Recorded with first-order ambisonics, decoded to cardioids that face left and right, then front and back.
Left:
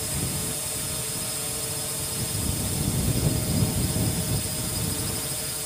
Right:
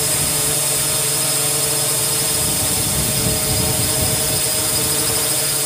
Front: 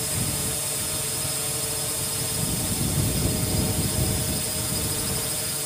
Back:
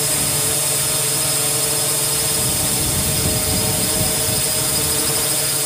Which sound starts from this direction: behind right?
A drone, at 0.0 s.